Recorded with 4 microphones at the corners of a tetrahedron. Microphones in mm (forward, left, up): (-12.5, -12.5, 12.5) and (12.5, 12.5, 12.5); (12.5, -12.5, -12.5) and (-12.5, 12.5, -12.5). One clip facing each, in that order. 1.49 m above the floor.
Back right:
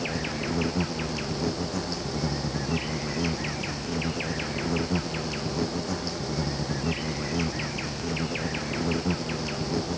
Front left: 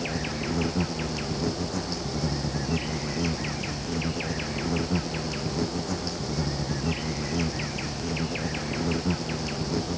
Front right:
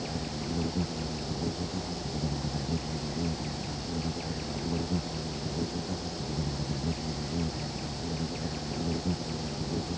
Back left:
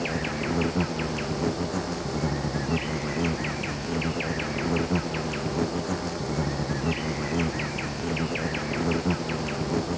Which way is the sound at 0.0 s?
140° left.